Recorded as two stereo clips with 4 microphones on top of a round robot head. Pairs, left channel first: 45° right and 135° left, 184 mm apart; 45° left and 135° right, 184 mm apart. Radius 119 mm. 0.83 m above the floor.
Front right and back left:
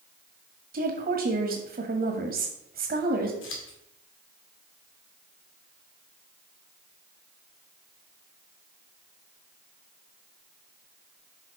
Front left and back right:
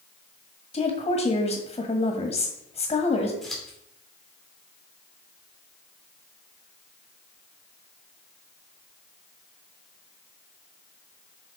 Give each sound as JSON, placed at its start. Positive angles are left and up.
{"t": 0.7, "sound": "a woman speaking", "azimuth_deg": 105, "distance_m": 1.6}
{"t": 3.4, "sound": "scissors", "azimuth_deg": -45, "distance_m": 2.5}